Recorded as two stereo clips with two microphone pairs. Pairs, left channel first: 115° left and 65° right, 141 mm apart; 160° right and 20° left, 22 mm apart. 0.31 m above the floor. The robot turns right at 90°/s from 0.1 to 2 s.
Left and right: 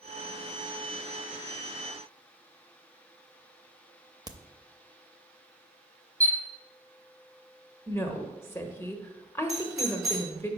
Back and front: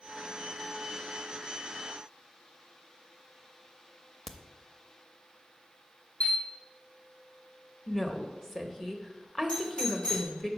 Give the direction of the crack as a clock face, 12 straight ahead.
3 o'clock.